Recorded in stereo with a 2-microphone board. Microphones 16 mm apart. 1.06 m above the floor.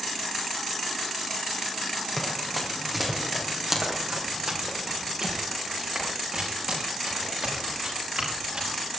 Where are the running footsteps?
10° left (ahead or behind), 3.5 m; by 8.9 s 70° right (ahead or behind), 9 m.